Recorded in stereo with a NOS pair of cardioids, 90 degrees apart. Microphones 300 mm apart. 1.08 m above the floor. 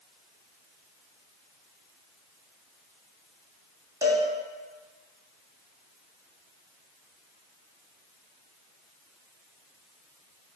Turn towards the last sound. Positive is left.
turn(degrees=-10)